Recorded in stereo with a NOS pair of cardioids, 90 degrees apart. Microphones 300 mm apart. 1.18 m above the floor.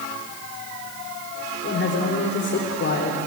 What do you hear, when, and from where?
1.6 s a man speaking: 50° left, 3.5 m